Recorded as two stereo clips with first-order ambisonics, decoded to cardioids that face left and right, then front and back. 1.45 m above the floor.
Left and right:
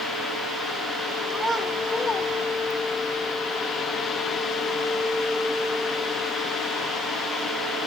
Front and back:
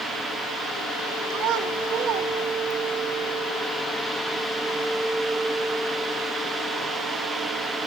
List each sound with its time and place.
1.3 s a child speaking: 170° right, 1.0 m; by 3.0 s 115° left, 1.0 m